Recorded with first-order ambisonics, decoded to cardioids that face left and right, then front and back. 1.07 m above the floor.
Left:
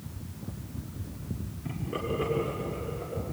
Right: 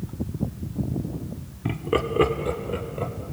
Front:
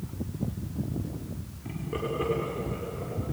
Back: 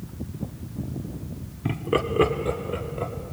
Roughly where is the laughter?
Behind right.